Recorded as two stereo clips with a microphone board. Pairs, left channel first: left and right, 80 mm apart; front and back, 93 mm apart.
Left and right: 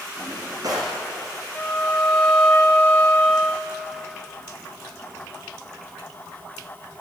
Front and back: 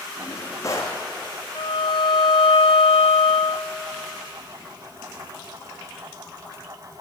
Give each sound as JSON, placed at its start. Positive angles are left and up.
{"t": 0.2, "sound": "a drawer", "azimuth_deg": -55, "distance_m": 4.5}
{"t": 1.6, "sound": "a violin", "azimuth_deg": 15, "distance_m": 3.0}